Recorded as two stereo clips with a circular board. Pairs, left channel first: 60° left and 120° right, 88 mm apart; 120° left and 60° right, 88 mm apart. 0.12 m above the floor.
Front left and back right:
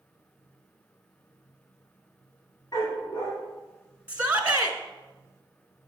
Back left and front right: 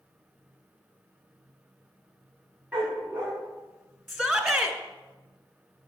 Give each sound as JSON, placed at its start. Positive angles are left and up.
{"t": 2.7, "sound": "a dog barking", "azimuth_deg": 20, "distance_m": 5.5}
{"t": 4.1, "sound": "a shout", "azimuth_deg": -145, "distance_m": 1.1}